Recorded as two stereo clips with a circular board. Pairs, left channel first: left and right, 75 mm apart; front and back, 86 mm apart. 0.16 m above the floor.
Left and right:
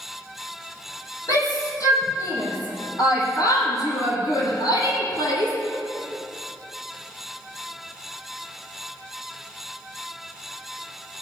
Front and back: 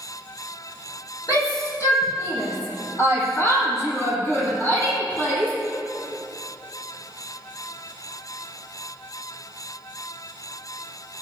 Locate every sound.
1.3 s a shout: 45° left, 6 m; by 5.5 s 70° left, 5.5 m